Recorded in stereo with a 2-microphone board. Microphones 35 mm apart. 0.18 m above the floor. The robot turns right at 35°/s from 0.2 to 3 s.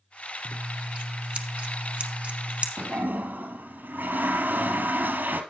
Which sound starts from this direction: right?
A toilet flushing, at 2.8 s.